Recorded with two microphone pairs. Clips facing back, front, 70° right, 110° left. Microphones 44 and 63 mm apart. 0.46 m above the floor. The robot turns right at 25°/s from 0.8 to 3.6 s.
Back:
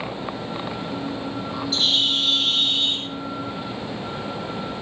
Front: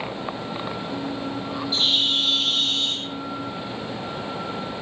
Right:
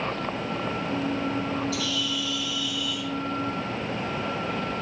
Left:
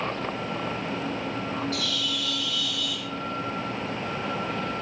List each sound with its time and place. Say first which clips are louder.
1.7 s a bird: back 1 dB, right 1 dB; 75° left, 8 m; by 3.1 s 105° left, 8 m